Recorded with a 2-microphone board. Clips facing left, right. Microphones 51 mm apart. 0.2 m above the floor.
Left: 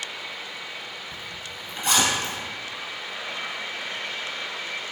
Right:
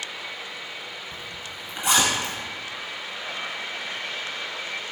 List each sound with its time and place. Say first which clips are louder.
1.1 s a zipper: even; 15° right (ahead or behind), 1.3 m